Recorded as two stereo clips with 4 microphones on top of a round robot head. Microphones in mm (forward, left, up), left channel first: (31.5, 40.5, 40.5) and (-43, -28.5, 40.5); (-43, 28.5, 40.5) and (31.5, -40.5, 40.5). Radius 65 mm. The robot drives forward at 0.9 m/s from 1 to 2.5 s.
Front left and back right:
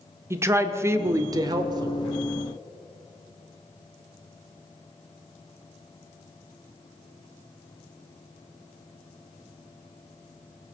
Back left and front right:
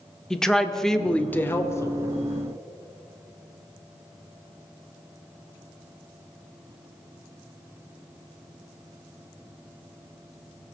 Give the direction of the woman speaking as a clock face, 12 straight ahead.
5 o'clock.